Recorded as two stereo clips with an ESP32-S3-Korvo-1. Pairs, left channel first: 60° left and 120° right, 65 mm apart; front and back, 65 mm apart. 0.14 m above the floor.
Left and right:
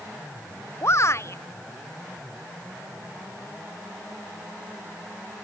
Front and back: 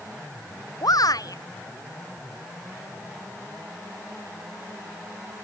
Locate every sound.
0.8 s a shout: 15° left